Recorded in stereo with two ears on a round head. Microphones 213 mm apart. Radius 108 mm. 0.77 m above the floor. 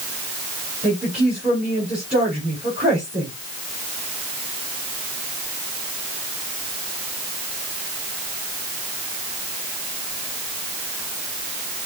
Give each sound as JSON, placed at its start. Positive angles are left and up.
{"t": 0.8, "sound": "a woman speaking", "side_deg": -5, "distance_m": 4.0}